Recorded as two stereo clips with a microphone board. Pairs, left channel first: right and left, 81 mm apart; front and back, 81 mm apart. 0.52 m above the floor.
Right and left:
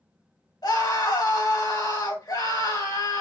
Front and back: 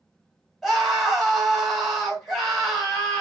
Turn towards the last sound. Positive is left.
turn(degrees=-95)